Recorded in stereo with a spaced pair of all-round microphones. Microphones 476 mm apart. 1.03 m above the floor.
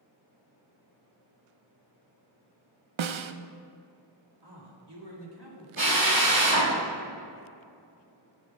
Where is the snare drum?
75° right (ahead or behind), 0.5 m.